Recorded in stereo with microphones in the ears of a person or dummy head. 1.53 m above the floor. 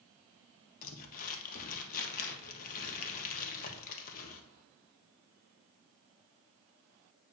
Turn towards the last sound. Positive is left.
turn(degrees=45)  # may be behind; listen again after turning